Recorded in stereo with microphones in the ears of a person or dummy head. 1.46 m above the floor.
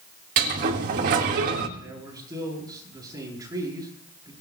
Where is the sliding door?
45° right (ahead or behind), 1.4 m.